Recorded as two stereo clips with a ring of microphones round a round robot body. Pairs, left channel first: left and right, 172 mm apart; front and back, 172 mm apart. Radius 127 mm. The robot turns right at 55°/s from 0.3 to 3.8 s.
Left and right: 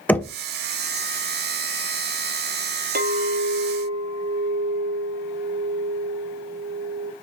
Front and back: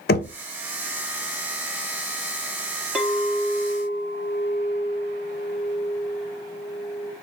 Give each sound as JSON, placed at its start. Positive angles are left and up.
{"t": 0.1, "sound": "knocking", "azimuth_deg": 10, "distance_m": 0.5}
{"t": 3.0, "sound": "a clink", "azimuth_deg": -95, "distance_m": 0.5}